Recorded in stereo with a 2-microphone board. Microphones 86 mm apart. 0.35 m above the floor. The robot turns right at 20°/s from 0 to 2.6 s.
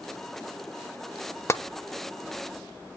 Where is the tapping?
30° left (ahead or behind), 0.6 m.